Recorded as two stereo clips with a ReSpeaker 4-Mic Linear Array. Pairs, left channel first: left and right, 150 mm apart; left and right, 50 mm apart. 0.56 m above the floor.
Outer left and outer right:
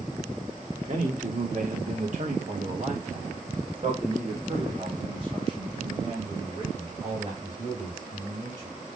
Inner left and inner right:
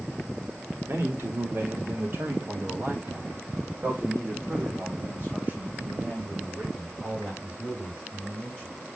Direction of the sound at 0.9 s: 55° right (ahead or behind).